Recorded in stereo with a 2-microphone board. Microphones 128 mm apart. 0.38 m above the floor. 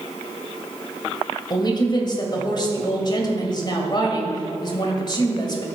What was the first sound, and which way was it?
A woman speaking, 40° left (ahead or behind).